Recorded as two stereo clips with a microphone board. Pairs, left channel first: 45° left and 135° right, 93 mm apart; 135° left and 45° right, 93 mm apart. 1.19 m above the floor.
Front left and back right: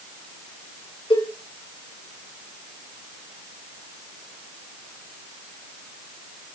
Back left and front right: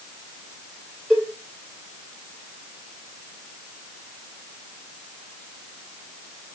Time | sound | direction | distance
1.1 | a cowbell | 50° left | 3.5 m